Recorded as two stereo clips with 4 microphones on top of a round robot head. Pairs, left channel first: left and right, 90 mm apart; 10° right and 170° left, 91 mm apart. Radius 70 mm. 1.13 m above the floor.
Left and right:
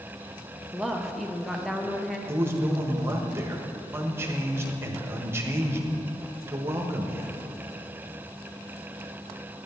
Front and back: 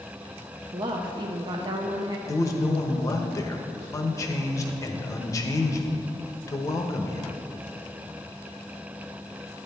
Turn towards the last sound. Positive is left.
turn(degrees=-40)